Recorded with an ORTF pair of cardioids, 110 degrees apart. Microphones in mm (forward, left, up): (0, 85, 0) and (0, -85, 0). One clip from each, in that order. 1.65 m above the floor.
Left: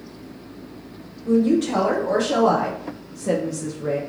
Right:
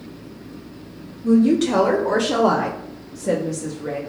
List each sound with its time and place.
1.2 s a woman speaking: 60° right, 1.2 m; by 4.0 s 25° left, 0.9 m